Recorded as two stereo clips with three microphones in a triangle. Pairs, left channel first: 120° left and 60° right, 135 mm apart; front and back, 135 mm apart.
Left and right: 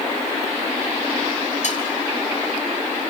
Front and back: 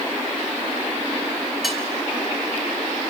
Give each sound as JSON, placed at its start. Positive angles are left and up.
{"t": 1.6, "sound": "cutlery clinking", "azimuth_deg": 90, "distance_m": 2.5}